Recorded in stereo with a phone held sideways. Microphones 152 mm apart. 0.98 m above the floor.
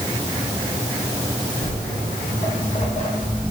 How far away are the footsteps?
About 2.5 m.